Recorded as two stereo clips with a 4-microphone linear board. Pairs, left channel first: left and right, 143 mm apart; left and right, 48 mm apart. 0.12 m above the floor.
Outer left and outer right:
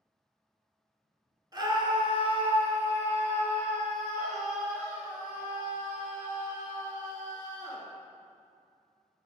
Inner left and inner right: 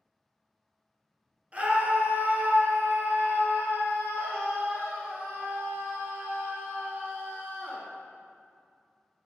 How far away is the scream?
About 1.3 m.